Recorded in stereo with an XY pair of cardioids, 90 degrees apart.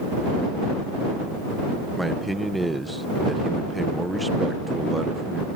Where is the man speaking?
10° right.